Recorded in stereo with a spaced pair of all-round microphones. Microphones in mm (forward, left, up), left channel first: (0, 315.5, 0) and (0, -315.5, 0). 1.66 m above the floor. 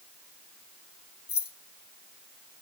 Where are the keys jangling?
40° left (ahead or behind), 0.7 m.